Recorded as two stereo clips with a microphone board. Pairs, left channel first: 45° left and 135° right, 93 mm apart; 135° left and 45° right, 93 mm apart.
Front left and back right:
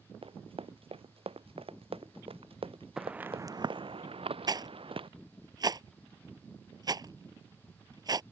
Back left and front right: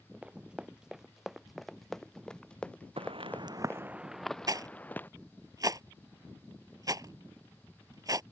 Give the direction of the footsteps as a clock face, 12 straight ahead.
2 o'clock.